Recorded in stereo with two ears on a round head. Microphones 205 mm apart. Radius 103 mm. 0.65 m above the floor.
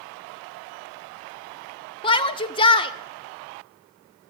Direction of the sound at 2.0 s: 25° left (ahead or behind).